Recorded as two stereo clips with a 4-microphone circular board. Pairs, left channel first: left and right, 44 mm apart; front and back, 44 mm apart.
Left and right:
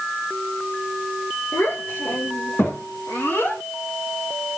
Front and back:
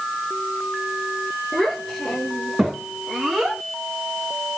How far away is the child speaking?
About 2.5 m.